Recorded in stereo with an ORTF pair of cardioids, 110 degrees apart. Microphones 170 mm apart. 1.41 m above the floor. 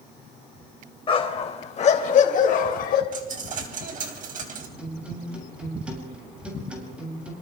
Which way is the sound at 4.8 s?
5° right.